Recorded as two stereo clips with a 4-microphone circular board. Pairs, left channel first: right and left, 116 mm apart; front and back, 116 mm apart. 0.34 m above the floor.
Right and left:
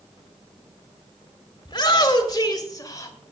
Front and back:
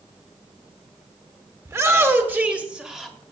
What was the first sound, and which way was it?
A shout, 125° right.